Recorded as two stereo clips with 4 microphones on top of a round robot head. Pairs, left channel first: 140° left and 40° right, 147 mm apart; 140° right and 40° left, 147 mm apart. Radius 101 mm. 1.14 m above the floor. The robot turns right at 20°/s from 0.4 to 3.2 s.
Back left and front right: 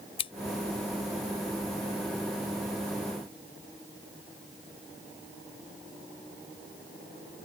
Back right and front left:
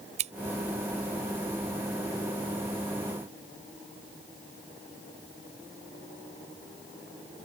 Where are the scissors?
85° left.